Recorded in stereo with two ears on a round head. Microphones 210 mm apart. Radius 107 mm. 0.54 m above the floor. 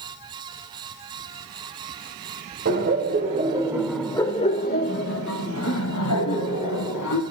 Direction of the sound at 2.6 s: 45° right (ahead or behind).